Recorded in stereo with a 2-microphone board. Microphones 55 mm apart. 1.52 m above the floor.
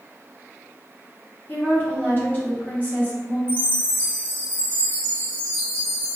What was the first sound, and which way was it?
A woman speaking, 30° left (ahead or behind).